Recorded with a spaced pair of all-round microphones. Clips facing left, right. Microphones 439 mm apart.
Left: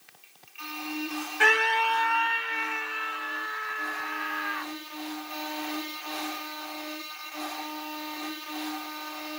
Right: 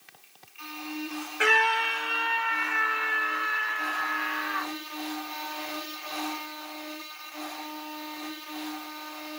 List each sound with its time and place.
1.4 s a scream: 10° left (ahead or behind); by 4.7 s 80° right